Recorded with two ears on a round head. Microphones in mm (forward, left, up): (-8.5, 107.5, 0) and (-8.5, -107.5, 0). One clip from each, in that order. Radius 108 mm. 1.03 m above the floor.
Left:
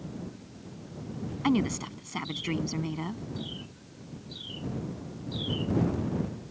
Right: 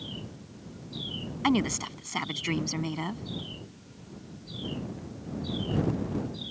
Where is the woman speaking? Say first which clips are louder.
Right 1 dB; 30° right (ahead or behind).